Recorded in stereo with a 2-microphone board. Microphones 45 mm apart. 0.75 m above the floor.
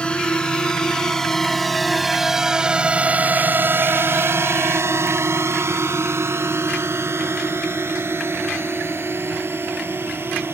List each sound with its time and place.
0.0 s a drone: 20° left (ahead or behind); by 10.5 s 60° right (ahead or behind)